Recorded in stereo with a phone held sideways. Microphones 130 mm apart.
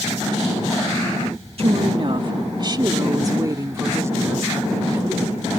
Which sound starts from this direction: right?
A woman speaking, at 1.6 s.